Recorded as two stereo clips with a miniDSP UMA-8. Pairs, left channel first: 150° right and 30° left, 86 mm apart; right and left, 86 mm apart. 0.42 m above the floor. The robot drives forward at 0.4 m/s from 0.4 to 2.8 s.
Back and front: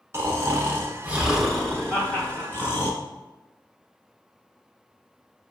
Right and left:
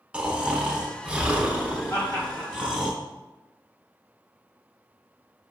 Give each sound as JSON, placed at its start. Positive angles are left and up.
{"t": 0.1, "sound": "snoring", "azimuth_deg": 25, "distance_m": 0.8}
{"t": 1.9, "sound": "laughter", "azimuth_deg": -105, "distance_m": 1.6}